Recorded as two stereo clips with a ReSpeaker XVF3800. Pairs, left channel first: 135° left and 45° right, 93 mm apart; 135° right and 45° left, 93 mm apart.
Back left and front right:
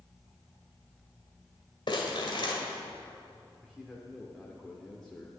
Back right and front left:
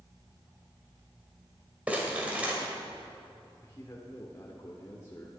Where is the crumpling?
120° left, 2 m.